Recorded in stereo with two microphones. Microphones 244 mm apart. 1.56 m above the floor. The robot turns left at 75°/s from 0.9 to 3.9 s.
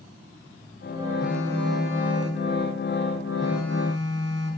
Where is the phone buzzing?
Straight ahead, 7 m; by 4.6 s 160° left, 7 m.